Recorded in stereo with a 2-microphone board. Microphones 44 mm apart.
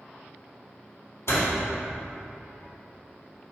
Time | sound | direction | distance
1.3 | a door slam | 65° left (ahead or behind) | 2.5 m